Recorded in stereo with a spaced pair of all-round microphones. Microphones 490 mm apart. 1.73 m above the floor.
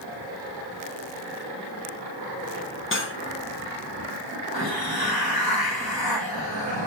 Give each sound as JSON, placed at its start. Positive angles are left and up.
{"t": 2.9, "sound": "cutlery clinking", "side_deg": 25, "distance_m": 0.9}
{"t": 4.5, "sound": "a hiss", "side_deg": 50, "distance_m": 1.1}